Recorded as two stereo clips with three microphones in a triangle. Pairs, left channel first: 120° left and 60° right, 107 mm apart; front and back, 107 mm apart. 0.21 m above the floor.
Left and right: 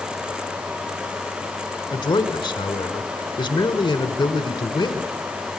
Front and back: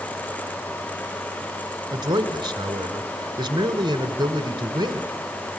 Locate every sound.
1.9 s a man speaking: 145° left, 1.8 m